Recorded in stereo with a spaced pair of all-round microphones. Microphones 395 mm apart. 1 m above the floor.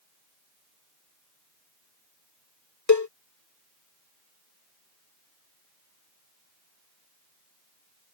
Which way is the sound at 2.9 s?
45° left (ahead or behind).